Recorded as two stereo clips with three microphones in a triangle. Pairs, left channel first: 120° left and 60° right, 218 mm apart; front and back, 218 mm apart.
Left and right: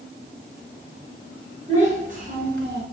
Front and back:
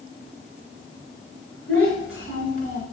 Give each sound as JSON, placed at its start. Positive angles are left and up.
{"t": 1.7, "sound": "a child speaking", "azimuth_deg": -5, "distance_m": 2.5}